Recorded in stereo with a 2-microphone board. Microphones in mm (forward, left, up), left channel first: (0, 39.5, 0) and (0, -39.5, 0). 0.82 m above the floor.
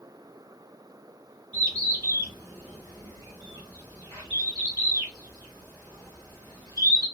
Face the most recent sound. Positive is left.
turn(degrees=-55)  # may be behind; listen again after turning